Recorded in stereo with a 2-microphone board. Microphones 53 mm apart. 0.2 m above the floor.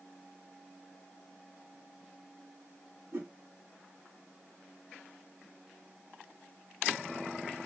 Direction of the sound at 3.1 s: 60° right (ahead or behind).